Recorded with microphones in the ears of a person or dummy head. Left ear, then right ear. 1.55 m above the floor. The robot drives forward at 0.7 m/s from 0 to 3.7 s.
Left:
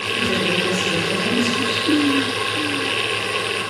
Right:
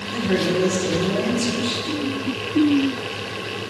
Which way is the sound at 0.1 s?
75° right (ahead or behind).